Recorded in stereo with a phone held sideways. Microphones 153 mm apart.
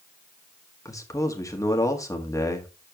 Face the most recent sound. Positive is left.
turn(degrees=20)  # may be behind; listen again after turning